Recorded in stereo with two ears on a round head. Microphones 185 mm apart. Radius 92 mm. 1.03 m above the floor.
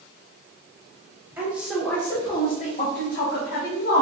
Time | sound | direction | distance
1.4 | a woman speaking | 10° right (ahead or behind) | 1.2 m